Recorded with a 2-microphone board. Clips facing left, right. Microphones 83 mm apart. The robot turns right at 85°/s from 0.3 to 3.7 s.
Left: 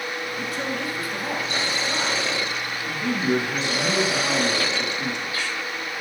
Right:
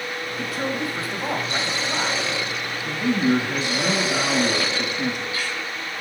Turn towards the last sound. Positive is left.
turn(degrees=-60)